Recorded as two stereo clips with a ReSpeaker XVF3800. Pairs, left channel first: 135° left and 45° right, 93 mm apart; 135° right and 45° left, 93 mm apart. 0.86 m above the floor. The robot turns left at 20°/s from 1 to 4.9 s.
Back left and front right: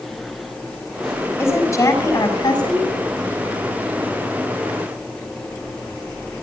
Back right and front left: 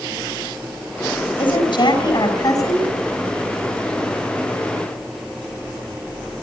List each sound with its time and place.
1.4 s a woman speaking: 160° right, 7 m; by 2.9 s 170° left, 7 m